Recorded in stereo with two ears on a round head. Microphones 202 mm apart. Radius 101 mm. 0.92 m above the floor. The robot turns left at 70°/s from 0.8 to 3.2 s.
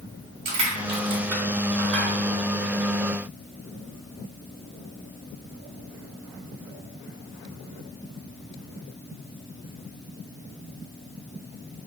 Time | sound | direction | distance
0.5 | crushing | 45° right (ahead or behind) | 1.6 m